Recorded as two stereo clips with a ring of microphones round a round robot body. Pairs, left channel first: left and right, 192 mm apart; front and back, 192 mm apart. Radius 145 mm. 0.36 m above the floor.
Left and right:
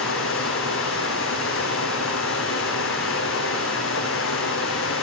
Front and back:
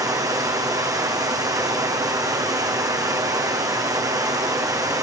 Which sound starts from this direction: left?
Running water, at 0.0 s.